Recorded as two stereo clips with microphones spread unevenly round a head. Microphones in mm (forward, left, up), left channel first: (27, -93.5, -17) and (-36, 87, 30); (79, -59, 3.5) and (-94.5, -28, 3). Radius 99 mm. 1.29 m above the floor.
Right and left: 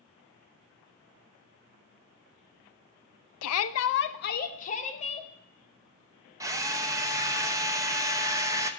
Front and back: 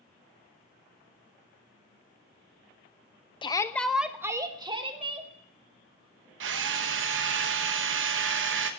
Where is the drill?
Straight behind, 1.0 m.